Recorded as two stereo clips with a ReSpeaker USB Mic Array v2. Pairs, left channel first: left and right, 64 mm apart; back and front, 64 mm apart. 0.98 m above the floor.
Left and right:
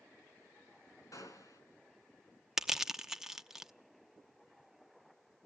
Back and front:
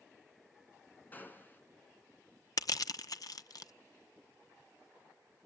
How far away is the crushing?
About 0.8 m.